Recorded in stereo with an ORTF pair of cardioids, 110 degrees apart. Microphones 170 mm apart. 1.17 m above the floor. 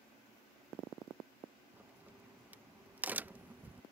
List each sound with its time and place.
1.7 s a crack: 10° right